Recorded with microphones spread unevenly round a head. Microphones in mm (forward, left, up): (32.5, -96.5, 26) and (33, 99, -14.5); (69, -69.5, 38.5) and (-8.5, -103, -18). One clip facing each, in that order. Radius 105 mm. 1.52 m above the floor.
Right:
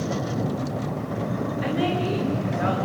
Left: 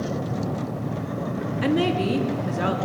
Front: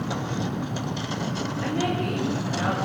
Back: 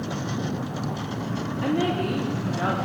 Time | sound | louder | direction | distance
1.6 | a woman speaking | left 4 dB, back 3 dB | 130° left | 3.5 m